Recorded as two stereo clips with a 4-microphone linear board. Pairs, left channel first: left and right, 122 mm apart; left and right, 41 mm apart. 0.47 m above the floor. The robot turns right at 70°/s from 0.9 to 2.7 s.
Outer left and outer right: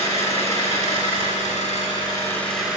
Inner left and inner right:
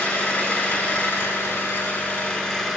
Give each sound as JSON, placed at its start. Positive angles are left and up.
{"t": 0.0, "sound": "an engine running", "azimuth_deg": 60, "distance_m": 6.5}